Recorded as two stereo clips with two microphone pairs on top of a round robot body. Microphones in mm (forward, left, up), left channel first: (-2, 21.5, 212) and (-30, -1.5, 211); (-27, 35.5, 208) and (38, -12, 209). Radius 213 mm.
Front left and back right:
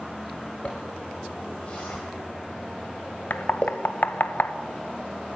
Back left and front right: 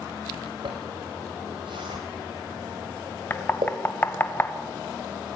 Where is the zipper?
20° right, 1.0 m.